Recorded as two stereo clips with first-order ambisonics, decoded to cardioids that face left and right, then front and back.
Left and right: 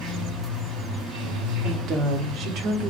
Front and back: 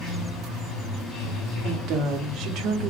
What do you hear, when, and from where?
0.0 s running water: 45° right, 1.8 m
1.6 s a woman speaking: 140° right, 0.8 m